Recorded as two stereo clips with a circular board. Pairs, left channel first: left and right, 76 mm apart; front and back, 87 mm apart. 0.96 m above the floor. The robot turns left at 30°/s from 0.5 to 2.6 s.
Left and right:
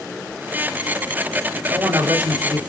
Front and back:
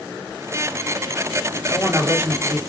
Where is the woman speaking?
95° right, 1.1 m; by 2.6 s 120° right, 1.1 m.